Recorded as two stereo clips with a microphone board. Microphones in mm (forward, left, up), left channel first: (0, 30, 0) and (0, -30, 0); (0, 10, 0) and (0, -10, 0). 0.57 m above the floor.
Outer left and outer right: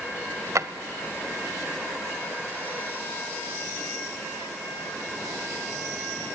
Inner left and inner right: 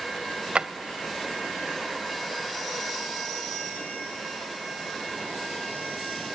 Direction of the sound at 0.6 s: 60° right (ahead or behind).